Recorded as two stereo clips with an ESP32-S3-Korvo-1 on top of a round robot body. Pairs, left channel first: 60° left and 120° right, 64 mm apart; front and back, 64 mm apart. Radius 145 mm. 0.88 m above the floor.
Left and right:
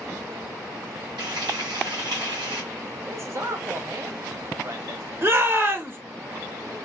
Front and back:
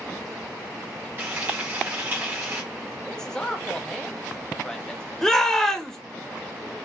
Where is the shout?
80° right, 1.3 m.